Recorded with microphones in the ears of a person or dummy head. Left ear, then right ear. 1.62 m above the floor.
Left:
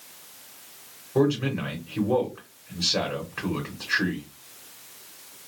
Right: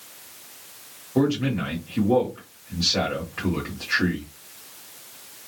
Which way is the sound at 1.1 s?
25° left (ahead or behind).